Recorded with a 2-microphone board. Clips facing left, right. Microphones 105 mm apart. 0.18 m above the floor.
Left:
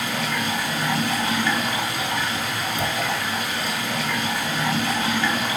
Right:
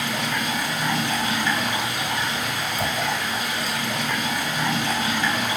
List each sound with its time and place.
0.0 s running water: 15° right (ahead or behind), 1.4 m
2.8 s a thud: 20° left (ahead or behind), 0.6 m